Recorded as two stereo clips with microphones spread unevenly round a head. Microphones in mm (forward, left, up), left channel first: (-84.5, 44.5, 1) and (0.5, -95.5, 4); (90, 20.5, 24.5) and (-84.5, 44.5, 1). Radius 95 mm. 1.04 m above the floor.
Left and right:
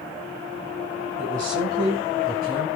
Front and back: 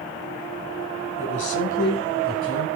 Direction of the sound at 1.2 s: 5° right.